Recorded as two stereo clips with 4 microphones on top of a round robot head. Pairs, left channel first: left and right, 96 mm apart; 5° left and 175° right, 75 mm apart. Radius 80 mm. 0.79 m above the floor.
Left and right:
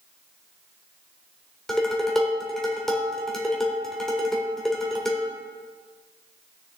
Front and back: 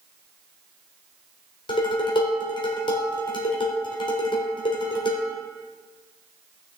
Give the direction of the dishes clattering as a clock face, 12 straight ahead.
12 o'clock.